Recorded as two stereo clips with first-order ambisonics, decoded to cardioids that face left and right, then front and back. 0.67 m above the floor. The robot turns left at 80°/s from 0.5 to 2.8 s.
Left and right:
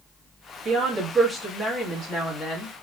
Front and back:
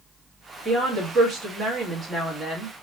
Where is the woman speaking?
115° right, 1.2 m; by 2.7 s 80° left, 1.2 m.